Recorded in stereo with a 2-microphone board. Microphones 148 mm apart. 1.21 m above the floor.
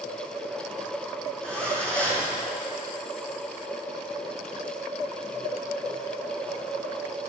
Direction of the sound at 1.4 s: 10° left (ahead or behind).